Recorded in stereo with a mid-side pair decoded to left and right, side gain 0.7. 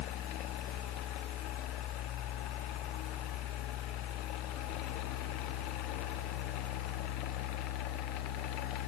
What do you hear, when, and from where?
0.0 s a fan: 65° left, 1.4 m